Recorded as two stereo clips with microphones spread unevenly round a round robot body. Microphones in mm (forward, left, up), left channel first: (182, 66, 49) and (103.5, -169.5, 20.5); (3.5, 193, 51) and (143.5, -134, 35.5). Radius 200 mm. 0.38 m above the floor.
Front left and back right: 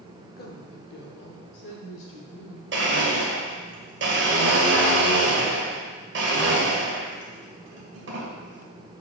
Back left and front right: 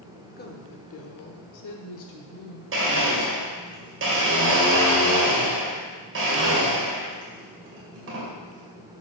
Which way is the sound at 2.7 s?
115° right.